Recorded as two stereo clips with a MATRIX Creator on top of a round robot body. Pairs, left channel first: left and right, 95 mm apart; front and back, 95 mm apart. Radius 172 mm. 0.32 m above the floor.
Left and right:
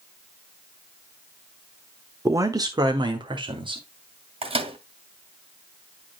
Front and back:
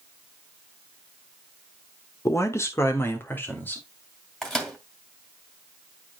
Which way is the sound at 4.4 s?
85° right.